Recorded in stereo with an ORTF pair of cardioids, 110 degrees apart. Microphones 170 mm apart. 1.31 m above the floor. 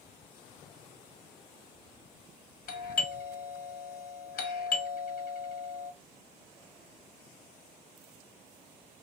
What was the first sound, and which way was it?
A doorbell, 65° left.